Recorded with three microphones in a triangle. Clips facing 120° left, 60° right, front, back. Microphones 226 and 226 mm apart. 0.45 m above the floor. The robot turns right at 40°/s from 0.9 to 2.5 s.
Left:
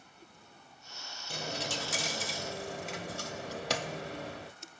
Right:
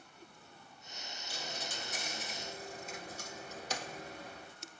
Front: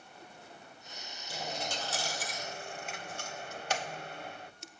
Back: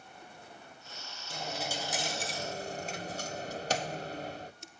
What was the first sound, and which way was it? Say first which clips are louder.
A dropped coin: left 8 dB, back 1 dB; 85° left.